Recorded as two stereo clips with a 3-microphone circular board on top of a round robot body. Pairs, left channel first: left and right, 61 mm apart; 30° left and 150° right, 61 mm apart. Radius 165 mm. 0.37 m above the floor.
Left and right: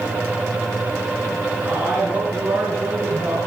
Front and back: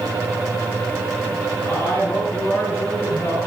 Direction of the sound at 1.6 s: 25° right.